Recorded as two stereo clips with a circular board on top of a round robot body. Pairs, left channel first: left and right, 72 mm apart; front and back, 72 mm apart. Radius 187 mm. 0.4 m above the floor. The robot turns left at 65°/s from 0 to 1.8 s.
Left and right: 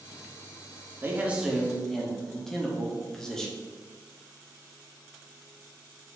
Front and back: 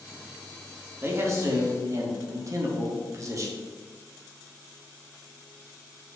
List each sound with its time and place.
1.0 s a man speaking: 140° right, 1.7 m; by 3.6 s 170° left, 1.7 m